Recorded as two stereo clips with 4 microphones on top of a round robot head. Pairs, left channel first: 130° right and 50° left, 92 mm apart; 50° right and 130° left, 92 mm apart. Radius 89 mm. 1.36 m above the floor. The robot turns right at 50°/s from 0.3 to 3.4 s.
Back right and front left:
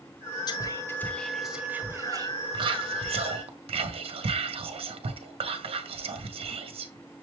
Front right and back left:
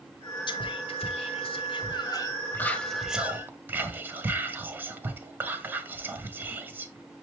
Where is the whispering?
85° right, 0.7 m; by 7.2 s 60° left, 0.7 m.